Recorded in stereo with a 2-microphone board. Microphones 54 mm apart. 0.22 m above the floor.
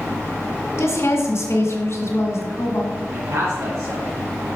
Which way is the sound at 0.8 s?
55° left (ahead or behind).